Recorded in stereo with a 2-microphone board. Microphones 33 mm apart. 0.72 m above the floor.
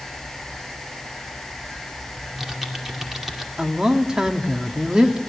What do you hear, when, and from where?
2.2 s typing on a keyboard: 10° right (ahead or behind), 2.5 m
3.6 s a woman speaking: 20° right (ahead or behind), 1.6 m